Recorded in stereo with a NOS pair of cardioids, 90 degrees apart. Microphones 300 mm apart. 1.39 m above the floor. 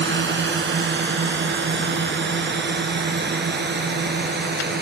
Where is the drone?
40° right; by 4.8 s 35° right.